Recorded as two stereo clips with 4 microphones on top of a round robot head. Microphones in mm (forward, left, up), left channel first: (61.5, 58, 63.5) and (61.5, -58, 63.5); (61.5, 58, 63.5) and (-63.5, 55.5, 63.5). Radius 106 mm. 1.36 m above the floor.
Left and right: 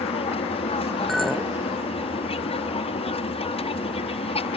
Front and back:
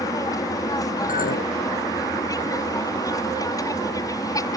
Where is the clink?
Straight ahead.